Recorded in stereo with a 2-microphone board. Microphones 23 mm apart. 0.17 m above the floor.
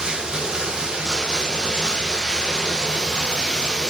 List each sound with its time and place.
0.0 s running water: 30° right (ahead or behind), 6 m